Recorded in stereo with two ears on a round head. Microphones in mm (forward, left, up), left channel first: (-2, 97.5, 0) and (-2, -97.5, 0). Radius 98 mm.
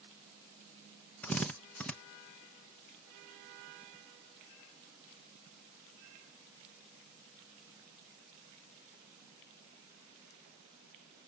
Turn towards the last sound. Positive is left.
turn(degrees=5)  # may be behind; listen again after turning